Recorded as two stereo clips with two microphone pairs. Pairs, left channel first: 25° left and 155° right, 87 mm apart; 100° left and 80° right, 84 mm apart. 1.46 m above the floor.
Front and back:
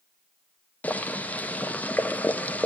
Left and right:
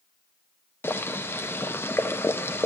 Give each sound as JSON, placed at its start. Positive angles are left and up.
{"t": 0.8, "sound": "boiling", "azimuth_deg": 75, "distance_m": 0.8}